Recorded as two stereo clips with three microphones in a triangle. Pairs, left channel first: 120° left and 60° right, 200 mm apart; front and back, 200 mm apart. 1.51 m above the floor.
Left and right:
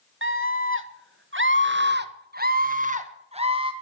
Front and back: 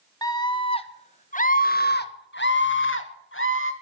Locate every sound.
0.2 s a scream: 70° right, 1.8 m; by 3.7 s 5° left, 1.8 m